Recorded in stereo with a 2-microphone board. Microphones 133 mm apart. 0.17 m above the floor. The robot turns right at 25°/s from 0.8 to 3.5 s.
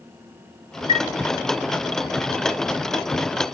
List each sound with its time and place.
0.9 s a chime: 50° left (ahead or behind), 2.5 m